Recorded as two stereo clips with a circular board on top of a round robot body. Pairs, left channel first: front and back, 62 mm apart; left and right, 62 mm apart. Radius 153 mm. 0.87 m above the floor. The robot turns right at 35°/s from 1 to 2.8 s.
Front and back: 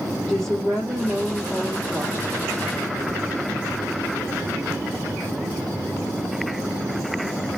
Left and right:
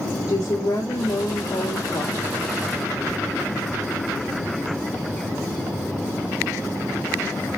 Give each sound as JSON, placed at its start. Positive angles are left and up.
{"t": 0.3, "sound": "a woman speaking", "azimuth_deg": 80, "distance_m": 1.7}